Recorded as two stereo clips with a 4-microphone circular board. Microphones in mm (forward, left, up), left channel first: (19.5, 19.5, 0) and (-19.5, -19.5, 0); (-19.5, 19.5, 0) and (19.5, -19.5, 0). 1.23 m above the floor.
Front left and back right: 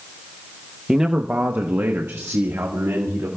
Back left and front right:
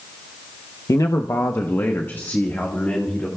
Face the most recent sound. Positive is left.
turn(degrees=-160)